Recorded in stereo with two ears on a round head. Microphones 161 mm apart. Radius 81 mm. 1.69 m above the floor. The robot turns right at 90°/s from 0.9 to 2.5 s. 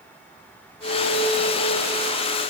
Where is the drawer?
No drawer in this recording.